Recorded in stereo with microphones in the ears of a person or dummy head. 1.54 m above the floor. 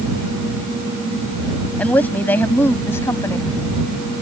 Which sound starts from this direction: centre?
A woman speaking, at 1.8 s.